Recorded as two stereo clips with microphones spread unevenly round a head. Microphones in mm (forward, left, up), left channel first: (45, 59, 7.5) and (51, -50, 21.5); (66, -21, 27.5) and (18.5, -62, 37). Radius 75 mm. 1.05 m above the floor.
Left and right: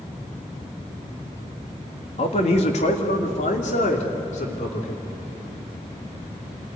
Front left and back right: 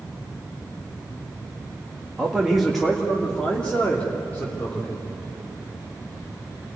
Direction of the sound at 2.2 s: 135° left.